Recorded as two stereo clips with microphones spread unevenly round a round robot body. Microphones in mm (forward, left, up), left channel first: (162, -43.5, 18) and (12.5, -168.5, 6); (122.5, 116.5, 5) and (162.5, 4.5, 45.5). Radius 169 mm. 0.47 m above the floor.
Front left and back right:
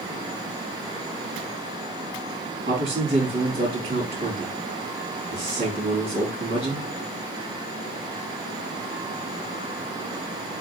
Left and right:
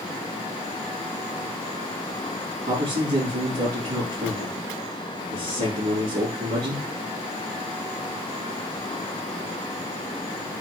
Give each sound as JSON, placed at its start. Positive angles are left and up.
{"t": 2.7, "sound": "a man speaking", "azimuth_deg": -105, "distance_m": 4.5}